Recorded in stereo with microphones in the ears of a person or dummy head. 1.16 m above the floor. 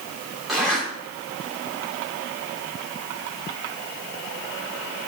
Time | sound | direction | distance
0.5 | a zipper | 5° right (ahead or behind) | 2.5 m